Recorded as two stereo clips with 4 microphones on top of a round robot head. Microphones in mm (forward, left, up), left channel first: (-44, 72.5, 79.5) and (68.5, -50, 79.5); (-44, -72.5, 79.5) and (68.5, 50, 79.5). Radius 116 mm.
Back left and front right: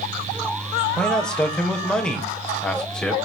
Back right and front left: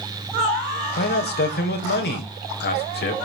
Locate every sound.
1.0 s a man speaking: 145° right, 3.5 m